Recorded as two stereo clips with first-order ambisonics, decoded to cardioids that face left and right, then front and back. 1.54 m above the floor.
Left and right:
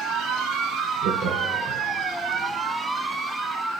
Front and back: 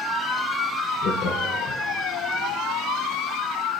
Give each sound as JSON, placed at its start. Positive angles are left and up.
{"t": 1.0, "sound": "laughter", "azimuth_deg": -50, "distance_m": 1.2}